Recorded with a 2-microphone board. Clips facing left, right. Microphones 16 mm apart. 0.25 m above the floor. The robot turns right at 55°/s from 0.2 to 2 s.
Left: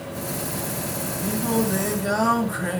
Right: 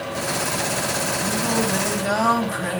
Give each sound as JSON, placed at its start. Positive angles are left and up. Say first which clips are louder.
{"t": 1.2, "sound": "singing", "louder": "left 2 dB", "azimuth_deg": -175, "distance_m": 1.6}